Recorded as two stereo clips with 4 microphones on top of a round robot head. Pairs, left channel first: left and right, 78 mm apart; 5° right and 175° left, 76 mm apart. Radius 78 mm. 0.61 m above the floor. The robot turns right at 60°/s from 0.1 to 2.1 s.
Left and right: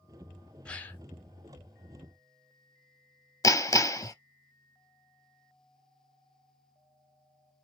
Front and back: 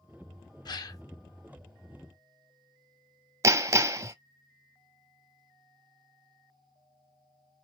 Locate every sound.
0.7 s a gasp: 15° left, 0.6 m; by 1.0 s 35° left, 0.6 m
3.4 s hammering: 130° left, 0.7 m